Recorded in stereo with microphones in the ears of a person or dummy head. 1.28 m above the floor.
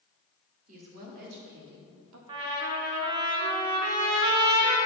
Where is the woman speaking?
50° right (ahead or behind), 2.5 m; by 2.2 s 80° right, 1.7 m.